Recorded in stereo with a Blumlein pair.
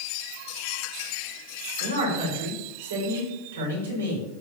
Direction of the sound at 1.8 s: 70° right.